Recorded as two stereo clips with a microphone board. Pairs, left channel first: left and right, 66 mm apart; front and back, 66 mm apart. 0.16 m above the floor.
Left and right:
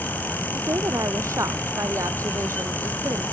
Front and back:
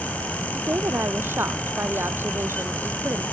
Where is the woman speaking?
125° right.